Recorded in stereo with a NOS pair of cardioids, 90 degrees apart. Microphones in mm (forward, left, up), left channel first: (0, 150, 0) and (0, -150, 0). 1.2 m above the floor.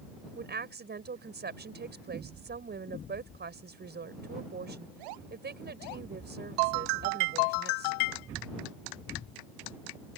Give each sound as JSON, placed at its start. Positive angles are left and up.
{"t": 0.3, "sound": "a woman speaking", "azimuth_deg": -35}